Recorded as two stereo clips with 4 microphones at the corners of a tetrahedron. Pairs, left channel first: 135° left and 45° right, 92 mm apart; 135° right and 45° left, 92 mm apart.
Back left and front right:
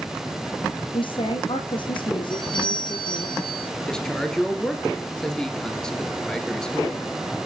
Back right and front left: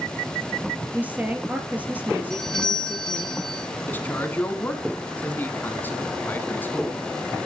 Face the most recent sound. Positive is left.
turn(degrees=-155)